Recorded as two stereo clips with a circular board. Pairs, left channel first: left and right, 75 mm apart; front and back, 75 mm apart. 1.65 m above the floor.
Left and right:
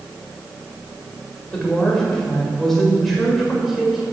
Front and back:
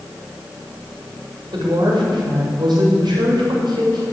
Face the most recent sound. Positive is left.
turn(degrees=-175)